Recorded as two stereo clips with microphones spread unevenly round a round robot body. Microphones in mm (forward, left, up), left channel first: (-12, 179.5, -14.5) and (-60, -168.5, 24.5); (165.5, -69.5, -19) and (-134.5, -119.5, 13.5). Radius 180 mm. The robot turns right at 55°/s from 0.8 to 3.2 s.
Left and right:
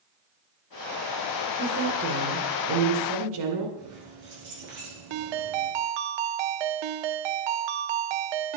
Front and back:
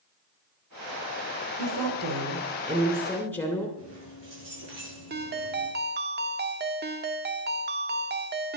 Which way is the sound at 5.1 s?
110° right.